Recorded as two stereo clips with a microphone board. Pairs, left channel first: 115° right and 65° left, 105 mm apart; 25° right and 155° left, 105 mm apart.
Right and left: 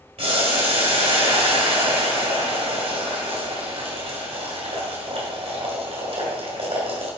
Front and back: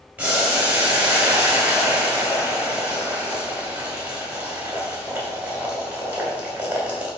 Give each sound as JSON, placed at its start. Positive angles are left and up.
{"t": 0.2, "sound": "boiling", "azimuth_deg": 80, "distance_m": 3.0}